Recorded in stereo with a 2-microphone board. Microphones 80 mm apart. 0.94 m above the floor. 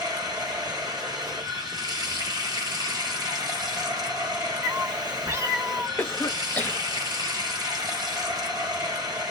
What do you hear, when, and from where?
0.0 s running water: 55° right (ahead or behind), 1.1 m
4.6 s a cat meowing: 35° right (ahead or behind), 0.5 m
6.0 s a cough: 25° left (ahead or behind), 0.9 m